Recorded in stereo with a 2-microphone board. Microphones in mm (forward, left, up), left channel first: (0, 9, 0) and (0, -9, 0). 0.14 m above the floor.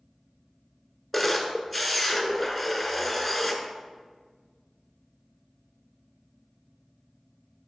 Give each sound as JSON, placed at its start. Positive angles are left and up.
{"t": 1.1, "sound": "a camera shutter", "side_deg": -5, "distance_m": 1.0}